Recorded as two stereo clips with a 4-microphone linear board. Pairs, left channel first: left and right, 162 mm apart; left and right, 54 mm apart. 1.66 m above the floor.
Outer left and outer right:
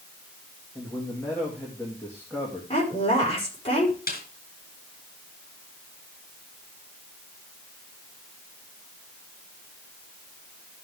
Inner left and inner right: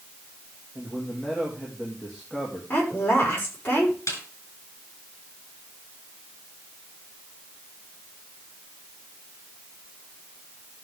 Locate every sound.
0.8 s a man speaking: 15° left (ahead or behind), 2.5 m
2.7 s a woman speaking: 35° left (ahead or behind), 5 m
4.1 s a snare drum: 60° left (ahead or behind), 3 m